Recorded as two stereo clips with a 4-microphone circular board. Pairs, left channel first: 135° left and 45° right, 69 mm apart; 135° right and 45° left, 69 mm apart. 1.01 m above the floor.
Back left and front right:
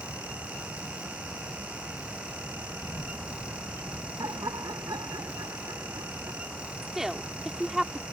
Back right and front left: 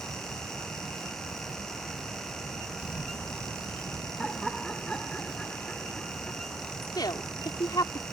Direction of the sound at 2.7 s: 160° left.